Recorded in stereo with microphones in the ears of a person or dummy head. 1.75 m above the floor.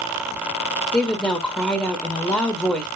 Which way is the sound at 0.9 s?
10° left (ahead or behind).